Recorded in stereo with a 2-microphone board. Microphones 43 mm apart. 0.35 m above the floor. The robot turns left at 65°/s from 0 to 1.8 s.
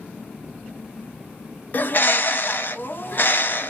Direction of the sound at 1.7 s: 45° left (ahead or behind).